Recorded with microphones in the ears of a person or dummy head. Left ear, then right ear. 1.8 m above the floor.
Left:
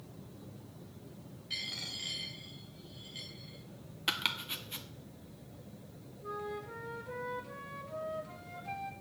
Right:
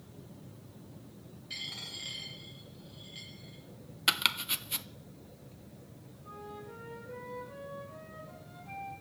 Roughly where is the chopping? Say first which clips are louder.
Right 5 dB; centre.